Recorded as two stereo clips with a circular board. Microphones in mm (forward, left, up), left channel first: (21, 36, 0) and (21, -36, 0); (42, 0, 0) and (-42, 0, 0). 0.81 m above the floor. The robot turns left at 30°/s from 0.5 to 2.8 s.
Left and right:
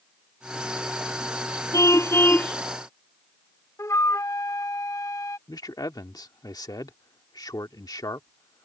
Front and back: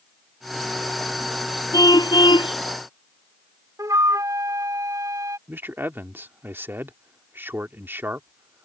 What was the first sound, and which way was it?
A car horn, 45° left.